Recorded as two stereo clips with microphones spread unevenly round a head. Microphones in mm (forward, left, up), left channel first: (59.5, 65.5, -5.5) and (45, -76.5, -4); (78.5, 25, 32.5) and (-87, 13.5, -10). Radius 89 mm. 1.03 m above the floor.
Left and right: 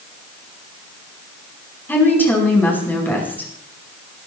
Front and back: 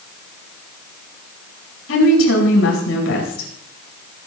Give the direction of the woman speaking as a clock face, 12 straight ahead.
12 o'clock.